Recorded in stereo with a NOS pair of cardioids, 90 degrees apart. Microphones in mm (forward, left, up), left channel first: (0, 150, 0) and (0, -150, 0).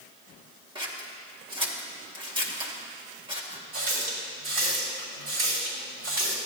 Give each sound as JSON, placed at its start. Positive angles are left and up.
{"t": 0.8, "sound": "scissors", "azimuth_deg": -15, "distance_m": 1.7}
{"t": 3.7, "sound": "a running tap", "azimuth_deg": -60, "distance_m": 3.5}